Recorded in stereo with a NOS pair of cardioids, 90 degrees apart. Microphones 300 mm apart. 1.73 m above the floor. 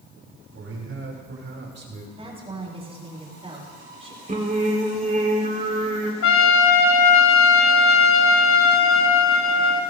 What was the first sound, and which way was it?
A man speaking, 50° right.